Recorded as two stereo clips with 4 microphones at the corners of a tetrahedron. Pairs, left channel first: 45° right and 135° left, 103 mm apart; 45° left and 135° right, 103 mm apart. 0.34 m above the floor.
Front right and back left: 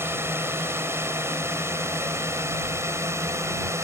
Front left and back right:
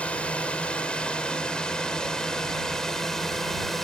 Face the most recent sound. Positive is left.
turn(degrees=130)